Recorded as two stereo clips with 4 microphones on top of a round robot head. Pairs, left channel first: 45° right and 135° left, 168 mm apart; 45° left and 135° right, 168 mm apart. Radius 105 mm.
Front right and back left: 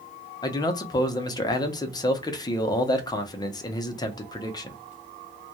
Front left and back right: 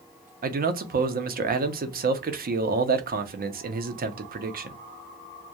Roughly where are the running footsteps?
No running footsteps in this recording.